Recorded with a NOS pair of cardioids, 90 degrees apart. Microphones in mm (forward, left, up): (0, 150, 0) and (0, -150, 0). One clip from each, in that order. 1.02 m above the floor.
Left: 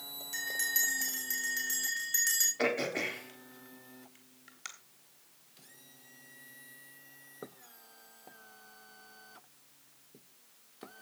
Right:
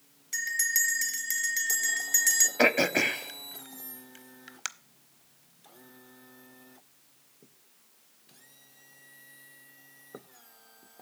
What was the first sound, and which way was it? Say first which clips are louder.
A bell: right 5 dB; 35° right.